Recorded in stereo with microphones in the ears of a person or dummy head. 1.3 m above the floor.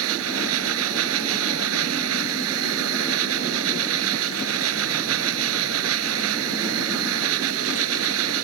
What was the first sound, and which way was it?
A machine running, 85° right.